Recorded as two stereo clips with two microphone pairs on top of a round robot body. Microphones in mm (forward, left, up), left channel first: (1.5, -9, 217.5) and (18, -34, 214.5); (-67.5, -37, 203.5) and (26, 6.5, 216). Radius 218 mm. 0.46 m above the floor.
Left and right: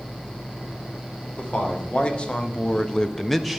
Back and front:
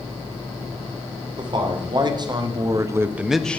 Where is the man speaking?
65° left, 2.5 m; by 3.6 s 120° right, 1.0 m.